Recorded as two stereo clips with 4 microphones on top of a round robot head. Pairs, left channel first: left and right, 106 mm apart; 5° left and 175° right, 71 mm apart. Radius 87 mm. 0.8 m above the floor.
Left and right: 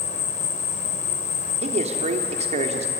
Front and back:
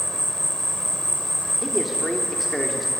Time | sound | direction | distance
0.0 | an insect | 90° left | 1.6 m
1.6 | a man speaking | 85° right | 2.5 m